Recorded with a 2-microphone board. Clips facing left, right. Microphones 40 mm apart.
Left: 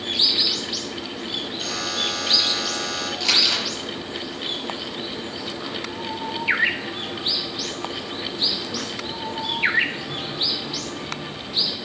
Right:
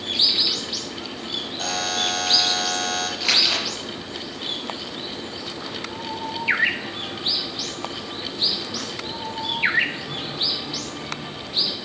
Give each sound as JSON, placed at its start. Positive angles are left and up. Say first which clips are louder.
{"t": 1.6, "sound": "a buzzer", "louder": "right 3 dB", "side_deg": -65, "distance_m": 2.5}
{"t": 3.2, "sound": "crumpling", "louder": "left 1 dB", "side_deg": -20, "distance_m": 5.0}